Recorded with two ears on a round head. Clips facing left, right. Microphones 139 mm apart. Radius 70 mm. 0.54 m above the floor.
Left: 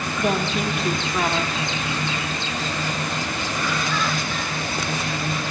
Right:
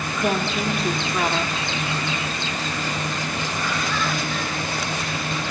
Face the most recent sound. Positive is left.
turn(degrees=0)  # may be behind; listen again after turning